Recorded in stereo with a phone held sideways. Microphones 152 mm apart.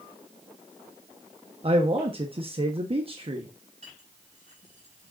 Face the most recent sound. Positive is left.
turn(degrees=-50)  # may be behind; listen again after turning